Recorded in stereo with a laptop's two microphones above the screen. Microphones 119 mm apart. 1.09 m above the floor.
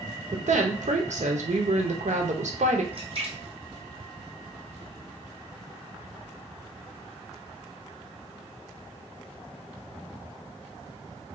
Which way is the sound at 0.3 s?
80° right.